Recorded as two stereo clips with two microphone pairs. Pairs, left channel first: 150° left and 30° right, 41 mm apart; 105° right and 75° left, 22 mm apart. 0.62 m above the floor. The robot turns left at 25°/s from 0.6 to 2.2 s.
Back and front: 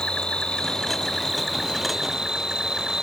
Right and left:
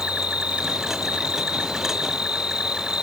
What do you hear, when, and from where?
0.0 s an insect: 85° left; by 3.0 s 45° left